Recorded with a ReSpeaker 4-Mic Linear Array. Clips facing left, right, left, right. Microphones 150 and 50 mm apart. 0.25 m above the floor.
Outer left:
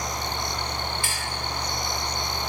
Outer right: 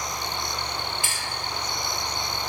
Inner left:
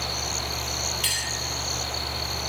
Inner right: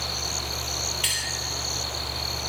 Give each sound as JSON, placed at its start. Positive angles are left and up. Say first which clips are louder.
{"t": 1.0, "sound": "a clink", "louder": "outer left 1 dB, inner right 1 dB", "side_deg": -20, "distance_m": 0.9}